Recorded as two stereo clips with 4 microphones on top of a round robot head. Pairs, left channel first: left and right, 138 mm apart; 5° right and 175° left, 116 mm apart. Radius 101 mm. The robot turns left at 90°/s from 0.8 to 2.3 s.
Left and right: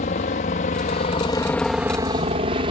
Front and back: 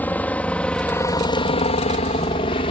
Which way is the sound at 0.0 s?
65° left.